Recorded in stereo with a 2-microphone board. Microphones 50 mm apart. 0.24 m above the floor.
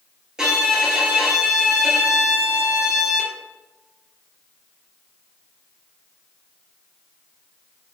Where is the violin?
15° right (ahead or behind), 2.5 m.